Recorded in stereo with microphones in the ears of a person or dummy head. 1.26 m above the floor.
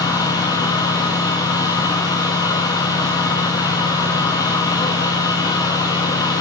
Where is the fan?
20° left (ahead or behind), 2.5 m.